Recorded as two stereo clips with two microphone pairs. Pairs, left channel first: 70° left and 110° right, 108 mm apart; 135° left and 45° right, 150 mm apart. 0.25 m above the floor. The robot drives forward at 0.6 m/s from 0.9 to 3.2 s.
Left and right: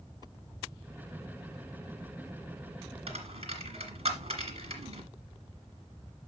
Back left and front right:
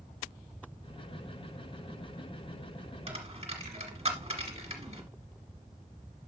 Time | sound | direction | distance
3.1 | a dropped coin | 90° right | 1.9 m